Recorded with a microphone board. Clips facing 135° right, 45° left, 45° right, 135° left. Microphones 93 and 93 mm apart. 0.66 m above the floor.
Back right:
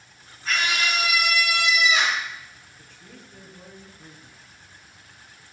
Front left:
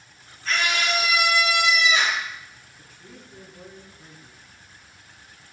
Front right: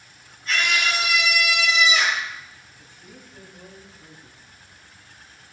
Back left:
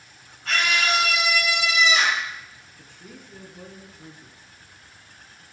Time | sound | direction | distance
0.5 | a scream | 140° left | 8 m
2.8 | a woman speaking | 125° left | 6 m